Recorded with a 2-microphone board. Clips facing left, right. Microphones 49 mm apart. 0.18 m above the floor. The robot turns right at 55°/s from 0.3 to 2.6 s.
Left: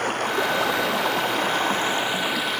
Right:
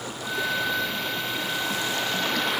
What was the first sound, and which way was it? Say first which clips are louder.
Running water: left 6 dB; 60° left.